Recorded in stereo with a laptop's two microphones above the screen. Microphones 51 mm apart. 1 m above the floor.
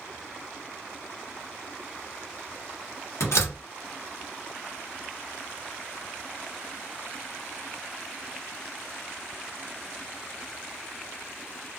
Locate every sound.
3.2 s a door slam: 80° left, 1.2 m